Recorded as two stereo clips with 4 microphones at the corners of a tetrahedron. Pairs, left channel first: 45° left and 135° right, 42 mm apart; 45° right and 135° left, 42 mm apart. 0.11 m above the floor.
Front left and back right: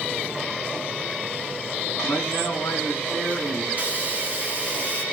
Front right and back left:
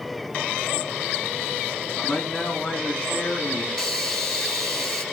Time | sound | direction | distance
2.0 | a man speaking | 10° left | 5.5 m
3.7 | a hiss | 115° right | 2 m